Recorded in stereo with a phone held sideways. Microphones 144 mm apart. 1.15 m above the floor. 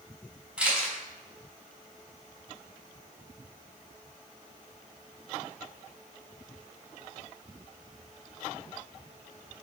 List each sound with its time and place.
0.6 s a camera shutter: 5° right (ahead or behind), 4 m